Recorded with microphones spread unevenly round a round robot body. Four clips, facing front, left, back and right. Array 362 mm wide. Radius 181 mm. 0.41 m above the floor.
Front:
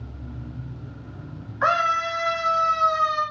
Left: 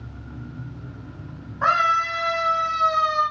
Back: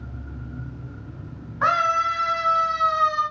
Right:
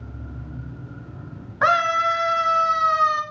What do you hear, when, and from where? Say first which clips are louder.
1.6 s a scream: right 1 dB, back 1 dB; 110° right, 6 m; by 3.2 s 125° right, 5 m